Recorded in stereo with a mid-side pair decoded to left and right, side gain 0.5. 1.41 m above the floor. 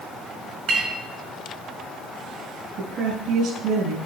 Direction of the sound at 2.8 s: 70° right.